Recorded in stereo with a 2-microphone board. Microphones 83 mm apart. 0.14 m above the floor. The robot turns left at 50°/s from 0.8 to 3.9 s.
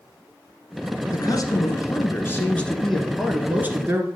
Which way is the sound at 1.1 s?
95° left.